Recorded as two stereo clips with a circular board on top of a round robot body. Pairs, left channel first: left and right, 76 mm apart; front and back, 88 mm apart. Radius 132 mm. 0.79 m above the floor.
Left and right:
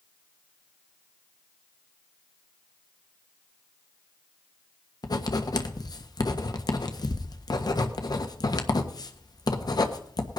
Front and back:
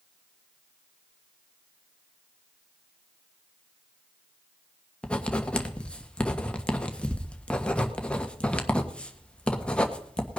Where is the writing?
75° left, 1.4 m.